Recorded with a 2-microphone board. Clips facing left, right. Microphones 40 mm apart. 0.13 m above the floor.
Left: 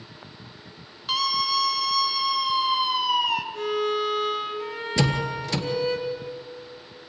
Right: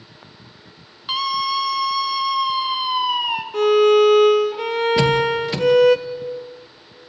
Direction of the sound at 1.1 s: 15° right (ahead or behind).